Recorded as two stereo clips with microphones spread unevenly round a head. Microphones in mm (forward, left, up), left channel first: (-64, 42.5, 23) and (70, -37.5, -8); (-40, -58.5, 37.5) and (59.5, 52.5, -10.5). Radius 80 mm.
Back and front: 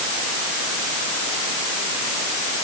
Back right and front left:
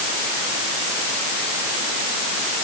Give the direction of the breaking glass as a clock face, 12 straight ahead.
No breaking glass in this recording.